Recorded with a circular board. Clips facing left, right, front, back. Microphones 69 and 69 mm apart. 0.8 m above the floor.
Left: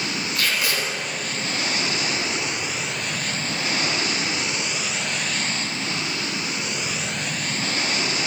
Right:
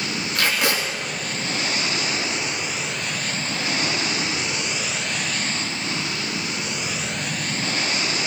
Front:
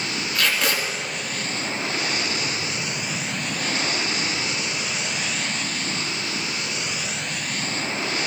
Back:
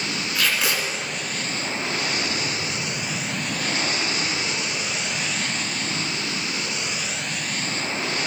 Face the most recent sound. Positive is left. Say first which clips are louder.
# right 3 dB, front 1 dB
turn(degrees=-95)